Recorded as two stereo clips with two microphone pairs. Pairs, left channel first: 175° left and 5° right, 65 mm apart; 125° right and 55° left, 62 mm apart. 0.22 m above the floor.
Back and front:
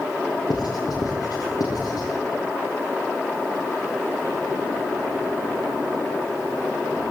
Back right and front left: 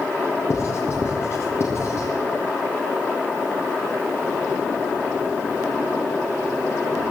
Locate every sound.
0.5 s writing: 170° right, 6 m